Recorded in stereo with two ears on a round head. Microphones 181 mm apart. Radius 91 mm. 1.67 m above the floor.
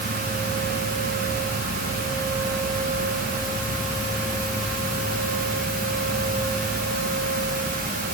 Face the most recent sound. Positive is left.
No sound to turn to.